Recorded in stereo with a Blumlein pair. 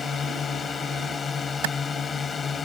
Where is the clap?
50° right.